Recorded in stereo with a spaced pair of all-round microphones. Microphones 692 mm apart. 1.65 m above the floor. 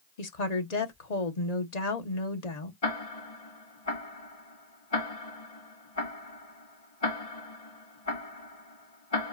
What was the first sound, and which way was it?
A woman speaking, 65° left (ahead or behind).